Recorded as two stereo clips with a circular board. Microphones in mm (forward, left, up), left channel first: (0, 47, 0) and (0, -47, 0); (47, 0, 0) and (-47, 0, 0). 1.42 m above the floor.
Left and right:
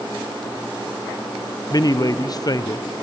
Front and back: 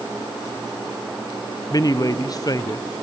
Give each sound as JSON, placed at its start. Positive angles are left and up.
{"t": 1.7, "sound": "a man speaking", "azimuth_deg": 45, "distance_m": 0.7}